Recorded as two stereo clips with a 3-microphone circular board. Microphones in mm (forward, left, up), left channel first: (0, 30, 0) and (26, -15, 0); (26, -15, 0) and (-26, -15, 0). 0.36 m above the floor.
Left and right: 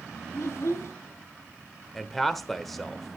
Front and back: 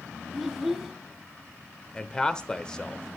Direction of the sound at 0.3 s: 90° left.